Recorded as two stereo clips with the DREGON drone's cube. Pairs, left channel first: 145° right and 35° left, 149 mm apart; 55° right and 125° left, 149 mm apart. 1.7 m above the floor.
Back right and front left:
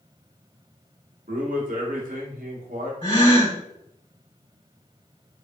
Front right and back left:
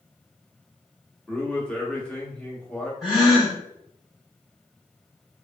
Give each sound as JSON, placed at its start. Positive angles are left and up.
{"t": 1.3, "sound": "a man speaking", "azimuth_deg": 25, "distance_m": 1.0}
{"t": 3.0, "sound": "a gasp", "azimuth_deg": -150, "distance_m": 1.9}